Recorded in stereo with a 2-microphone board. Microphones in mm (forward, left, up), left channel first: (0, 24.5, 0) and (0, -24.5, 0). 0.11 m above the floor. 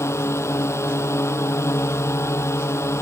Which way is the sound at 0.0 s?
70° left (ahead or behind).